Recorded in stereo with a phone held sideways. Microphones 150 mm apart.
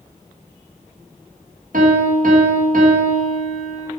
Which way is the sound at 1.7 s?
65° right (ahead or behind).